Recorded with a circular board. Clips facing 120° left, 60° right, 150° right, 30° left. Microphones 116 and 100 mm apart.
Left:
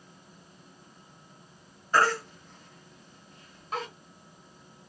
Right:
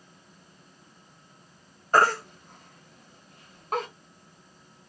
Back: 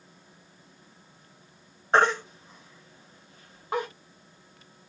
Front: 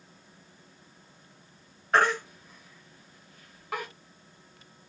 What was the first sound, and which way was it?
A baby crying, 90° right.